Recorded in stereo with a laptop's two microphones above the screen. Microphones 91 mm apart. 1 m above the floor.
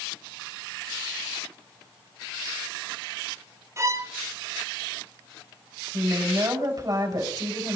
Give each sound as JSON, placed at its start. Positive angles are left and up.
{"t": 3.8, "sound": "a violin", "side_deg": -30, "distance_m": 0.7}
{"t": 5.9, "sound": "a woman speaking", "side_deg": -50, "distance_m": 5.5}